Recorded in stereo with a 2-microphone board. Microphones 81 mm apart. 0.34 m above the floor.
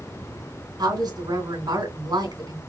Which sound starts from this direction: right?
A woman speaking, at 0.8 s.